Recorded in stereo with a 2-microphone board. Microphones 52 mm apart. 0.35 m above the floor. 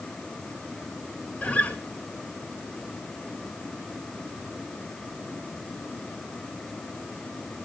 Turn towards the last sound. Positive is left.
turn(degrees=25)  # may be behind; listen again after turning